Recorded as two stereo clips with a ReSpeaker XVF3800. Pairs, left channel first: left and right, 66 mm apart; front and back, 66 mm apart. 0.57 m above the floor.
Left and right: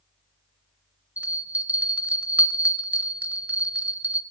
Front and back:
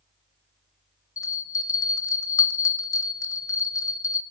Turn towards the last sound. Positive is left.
turn(degrees=-25)